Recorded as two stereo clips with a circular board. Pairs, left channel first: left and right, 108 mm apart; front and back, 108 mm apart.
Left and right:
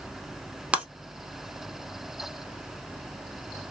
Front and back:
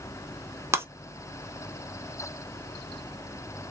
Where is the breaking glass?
155° right, 0.6 m.